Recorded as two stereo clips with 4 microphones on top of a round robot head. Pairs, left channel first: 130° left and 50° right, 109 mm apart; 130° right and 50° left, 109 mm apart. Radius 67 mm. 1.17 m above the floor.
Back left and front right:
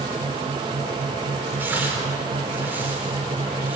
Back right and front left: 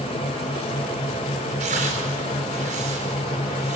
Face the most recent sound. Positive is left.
turn(degrees=25)